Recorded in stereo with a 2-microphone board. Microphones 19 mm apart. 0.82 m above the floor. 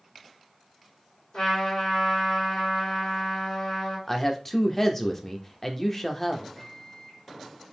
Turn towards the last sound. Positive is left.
turn(degrees=25)  # may be behind; listen again after turning